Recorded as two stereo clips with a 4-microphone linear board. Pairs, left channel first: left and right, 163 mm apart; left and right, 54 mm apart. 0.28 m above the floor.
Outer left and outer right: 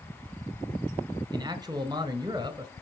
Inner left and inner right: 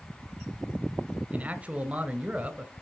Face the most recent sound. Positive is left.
turn(degrees=-25)  # may be behind; listen again after turning